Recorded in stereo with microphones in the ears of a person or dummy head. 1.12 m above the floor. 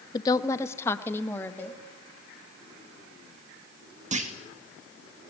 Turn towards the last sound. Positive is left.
turn(degrees=-40)  # may be behind; listen again after turning